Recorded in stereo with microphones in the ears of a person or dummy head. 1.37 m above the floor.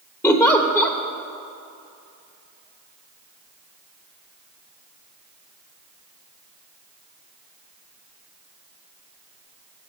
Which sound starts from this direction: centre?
A giggle, at 0.2 s.